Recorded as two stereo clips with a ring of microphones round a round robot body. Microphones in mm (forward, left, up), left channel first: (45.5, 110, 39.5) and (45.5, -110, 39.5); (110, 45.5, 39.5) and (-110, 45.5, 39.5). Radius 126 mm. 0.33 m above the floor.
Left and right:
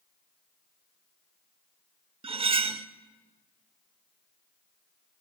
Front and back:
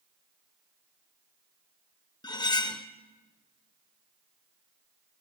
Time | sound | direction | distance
2.2 | cutlery clinking | 55° right | 0.6 m